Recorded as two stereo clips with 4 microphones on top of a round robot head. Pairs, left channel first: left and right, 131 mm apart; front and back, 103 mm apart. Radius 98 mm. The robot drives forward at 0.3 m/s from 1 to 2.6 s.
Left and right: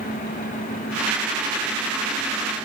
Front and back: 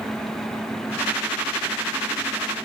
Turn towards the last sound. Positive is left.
No sound to turn to.